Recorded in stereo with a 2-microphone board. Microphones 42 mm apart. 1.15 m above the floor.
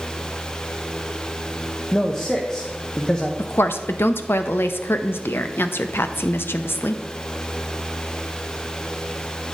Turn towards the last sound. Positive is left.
turn(degrees=60)  # may be behind; listen again after turning